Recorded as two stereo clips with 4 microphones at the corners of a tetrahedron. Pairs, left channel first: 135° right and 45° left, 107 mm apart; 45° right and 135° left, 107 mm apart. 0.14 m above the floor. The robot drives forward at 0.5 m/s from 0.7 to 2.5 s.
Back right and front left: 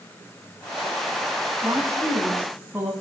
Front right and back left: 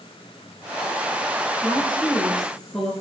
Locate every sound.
1.6 s a woman speaking: 25° left, 1.6 m; by 2.9 s 45° left, 1.5 m